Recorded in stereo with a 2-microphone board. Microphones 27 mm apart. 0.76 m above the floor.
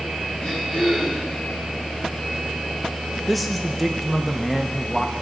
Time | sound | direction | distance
0.4 | throat clearing | 30° left (ahead or behind) | 4 m
3.3 | a man speaking | 5° left (ahead or behind) | 0.5 m